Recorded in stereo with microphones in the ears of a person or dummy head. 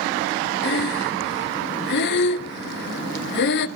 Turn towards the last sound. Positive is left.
turn(degrees=60)  # may be behind; listen again after turning